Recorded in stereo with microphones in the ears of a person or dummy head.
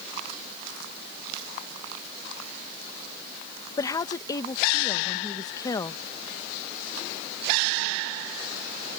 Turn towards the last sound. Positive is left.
turn(degrees=20)  # may be behind; listen again after turning